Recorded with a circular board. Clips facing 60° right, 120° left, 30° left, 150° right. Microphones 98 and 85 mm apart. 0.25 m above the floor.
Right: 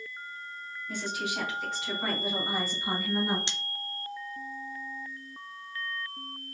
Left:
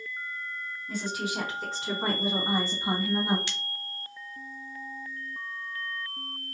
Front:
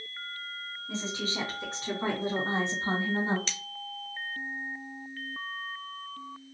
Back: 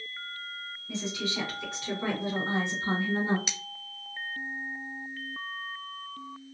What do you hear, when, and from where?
0.9 s a woman speaking: 75° left, 3 m; by 3.4 s 65° left, 1.9 m
3.5 s cutlery clinking: 90° right, 0.5 m